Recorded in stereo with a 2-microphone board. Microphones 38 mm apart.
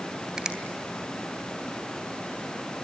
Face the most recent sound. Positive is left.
turn(degrees=-20)  # may be behind; listen again after turning